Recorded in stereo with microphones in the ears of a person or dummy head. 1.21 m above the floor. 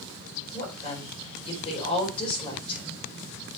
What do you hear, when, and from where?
0.5 s a woman speaking: 30° left (ahead or behind), 4 m